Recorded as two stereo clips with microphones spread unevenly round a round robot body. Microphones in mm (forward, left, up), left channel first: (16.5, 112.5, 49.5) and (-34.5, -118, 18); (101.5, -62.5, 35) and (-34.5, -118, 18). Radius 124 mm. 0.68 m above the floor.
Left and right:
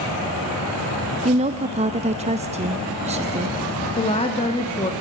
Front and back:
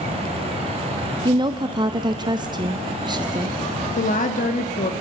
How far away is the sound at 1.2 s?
About 0.8 m.